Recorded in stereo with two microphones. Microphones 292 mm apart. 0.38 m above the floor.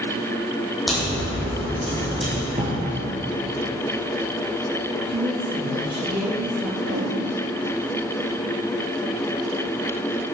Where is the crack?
Centre (ahead or behind), 4 m.